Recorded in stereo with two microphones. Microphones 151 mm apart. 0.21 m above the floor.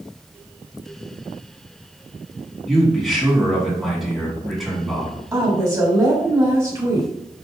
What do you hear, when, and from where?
2.7 s a man speaking: centre (ahead or behind), 1.8 m
5.3 s a woman speaking: 20° right (ahead or behind), 1.0 m